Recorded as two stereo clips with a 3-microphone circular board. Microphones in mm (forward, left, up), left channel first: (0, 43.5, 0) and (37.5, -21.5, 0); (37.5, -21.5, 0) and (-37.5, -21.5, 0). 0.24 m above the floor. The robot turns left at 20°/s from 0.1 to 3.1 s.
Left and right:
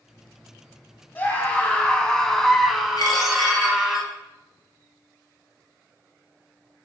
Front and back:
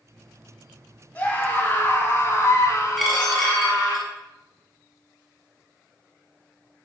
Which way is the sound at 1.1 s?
65° left.